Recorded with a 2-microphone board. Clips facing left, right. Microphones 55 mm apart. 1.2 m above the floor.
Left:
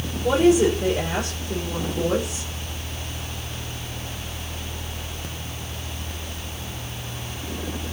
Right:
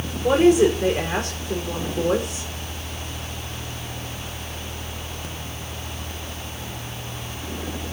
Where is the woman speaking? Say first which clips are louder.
Right 2 dB; 55° right (ahead or behind), 4.5 m.